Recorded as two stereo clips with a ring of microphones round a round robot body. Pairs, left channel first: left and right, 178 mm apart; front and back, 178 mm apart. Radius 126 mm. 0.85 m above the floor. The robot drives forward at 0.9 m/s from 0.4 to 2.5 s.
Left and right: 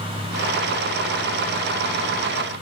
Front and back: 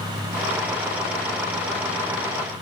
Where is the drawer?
I don't hear a drawer.